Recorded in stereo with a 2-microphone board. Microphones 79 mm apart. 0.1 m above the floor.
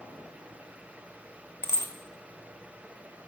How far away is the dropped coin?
About 0.6 m.